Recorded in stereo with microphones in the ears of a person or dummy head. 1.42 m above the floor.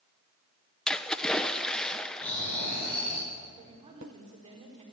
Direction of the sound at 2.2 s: 10° left (ahead or behind).